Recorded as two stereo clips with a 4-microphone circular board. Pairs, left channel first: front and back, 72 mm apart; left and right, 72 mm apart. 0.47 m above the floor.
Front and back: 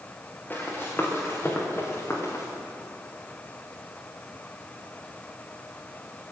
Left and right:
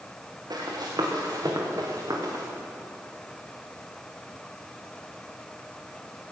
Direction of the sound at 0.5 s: 70° right.